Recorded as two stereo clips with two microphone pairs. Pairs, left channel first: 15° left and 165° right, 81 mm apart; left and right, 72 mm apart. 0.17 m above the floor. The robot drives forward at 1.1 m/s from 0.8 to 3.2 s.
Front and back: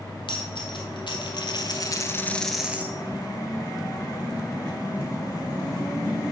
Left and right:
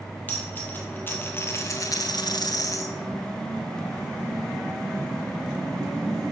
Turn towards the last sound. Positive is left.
turn(degrees=145)